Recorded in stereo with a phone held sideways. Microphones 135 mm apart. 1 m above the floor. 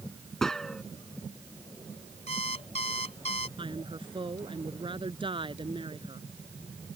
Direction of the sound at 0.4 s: 5° left (ahead or behind).